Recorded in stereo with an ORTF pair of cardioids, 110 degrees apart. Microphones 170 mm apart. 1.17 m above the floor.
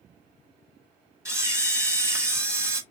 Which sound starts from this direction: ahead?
A camera shutter, at 1.2 s.